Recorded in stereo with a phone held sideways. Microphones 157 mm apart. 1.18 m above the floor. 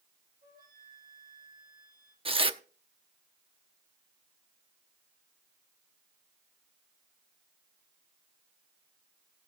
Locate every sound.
0.4 s a flute: 65° right (ahead or behind), 8.5 m
2.2 s tearing paper: 35° right (ahead or behind), 0.8 m